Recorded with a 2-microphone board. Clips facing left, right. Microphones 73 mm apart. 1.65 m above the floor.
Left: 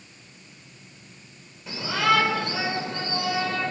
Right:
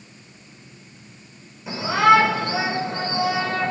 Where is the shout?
15° right (ahead or behind), 7.5 m.